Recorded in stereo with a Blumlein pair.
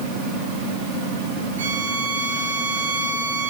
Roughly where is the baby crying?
I don't hear a baby crying.